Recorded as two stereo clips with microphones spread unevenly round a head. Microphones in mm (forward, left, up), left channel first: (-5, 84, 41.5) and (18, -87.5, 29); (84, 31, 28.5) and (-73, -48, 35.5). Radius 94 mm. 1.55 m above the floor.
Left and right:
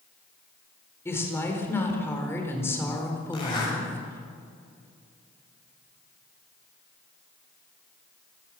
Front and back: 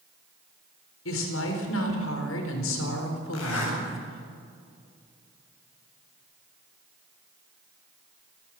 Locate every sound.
1.1 s a woman speaking: 20° left, 4.5 m
3.3 s a zipper: 35° left, 8.5 m